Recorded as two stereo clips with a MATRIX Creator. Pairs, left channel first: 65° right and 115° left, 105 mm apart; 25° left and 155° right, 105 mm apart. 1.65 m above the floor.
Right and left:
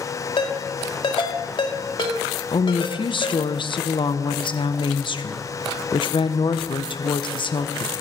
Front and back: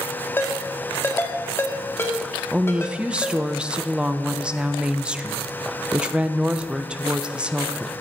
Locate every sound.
0.4 s a ringtone: 40° right, 1.8 m
2.5 s a woman speaking: 80° right, 0.8 m